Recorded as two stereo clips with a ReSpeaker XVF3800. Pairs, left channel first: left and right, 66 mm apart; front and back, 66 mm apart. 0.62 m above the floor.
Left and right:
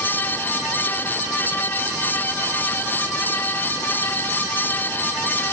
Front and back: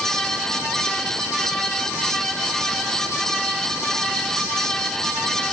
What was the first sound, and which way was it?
Only background noise.